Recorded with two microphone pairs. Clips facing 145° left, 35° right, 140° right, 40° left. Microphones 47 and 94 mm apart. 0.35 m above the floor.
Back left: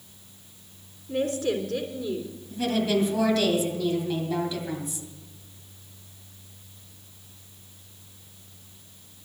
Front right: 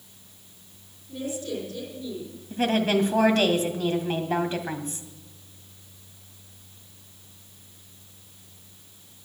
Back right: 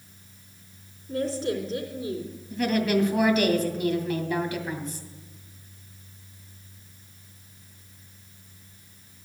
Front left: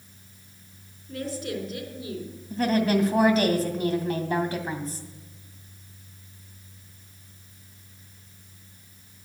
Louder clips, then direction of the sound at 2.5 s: Front right 2 dB, front left 1 dB; 5° right.